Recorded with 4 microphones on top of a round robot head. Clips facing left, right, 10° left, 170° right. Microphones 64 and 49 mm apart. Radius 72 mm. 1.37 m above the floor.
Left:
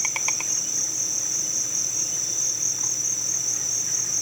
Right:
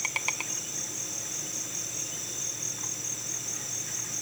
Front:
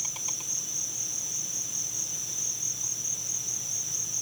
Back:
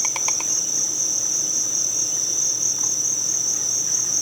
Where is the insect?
175° left.